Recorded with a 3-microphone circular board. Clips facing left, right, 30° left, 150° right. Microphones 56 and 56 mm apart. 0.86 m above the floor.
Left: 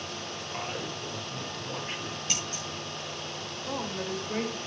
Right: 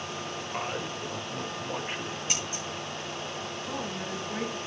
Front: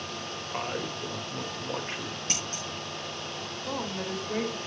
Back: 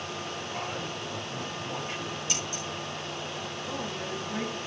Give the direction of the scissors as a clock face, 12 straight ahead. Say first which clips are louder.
Right 1 dB, back 1 dB; 12 o'clock.